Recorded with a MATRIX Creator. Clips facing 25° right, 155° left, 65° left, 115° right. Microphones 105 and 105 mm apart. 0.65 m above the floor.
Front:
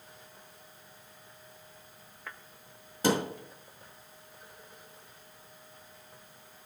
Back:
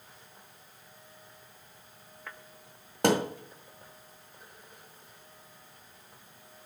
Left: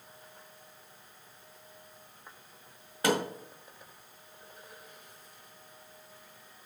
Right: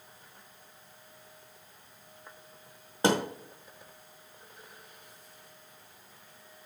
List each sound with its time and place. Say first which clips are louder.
3.0 s a thud: back 2 dB, right 2 dB; 175° right, 1.5 m